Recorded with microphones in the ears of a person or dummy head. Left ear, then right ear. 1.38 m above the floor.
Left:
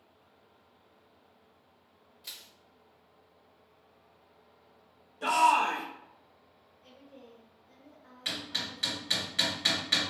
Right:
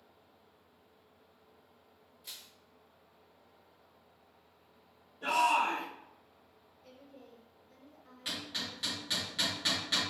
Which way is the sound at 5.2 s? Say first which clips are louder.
Left 4 dB; 70° left (ahead or behind).